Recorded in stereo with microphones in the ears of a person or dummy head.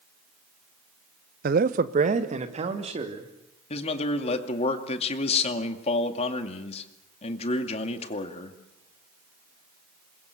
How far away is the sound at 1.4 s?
About 0.7 m.